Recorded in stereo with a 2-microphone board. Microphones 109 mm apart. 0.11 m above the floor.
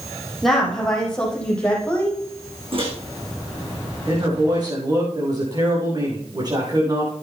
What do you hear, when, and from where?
0.4 s a woman speaking: centre (ahead or behind), 5 m; by 2.2 s 15° left (ahead or behind), 5.5 m
2.7 s a microwave: 55° right (ahead or behind), 5.5 m
4.1 s a man speaking: 40° right (ahead or behind), 7 m